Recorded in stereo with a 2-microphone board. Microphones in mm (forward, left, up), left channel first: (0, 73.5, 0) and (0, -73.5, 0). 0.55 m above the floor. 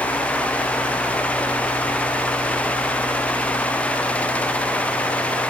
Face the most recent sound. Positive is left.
No sound to turn to.